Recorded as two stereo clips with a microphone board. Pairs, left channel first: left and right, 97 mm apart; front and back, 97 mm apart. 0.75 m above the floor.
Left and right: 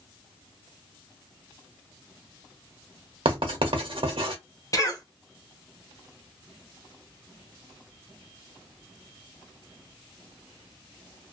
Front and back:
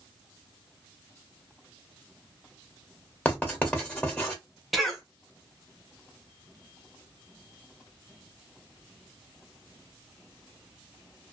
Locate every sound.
3.2 s writing: 75° right, 1.3 m
4.7 s a cough: 85° left, 1.2 m